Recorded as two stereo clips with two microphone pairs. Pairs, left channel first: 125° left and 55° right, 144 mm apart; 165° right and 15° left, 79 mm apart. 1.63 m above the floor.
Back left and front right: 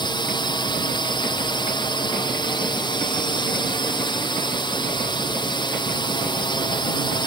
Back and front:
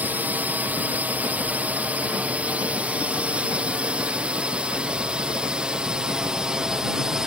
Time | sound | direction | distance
0.0 | a drone | 80° left | ?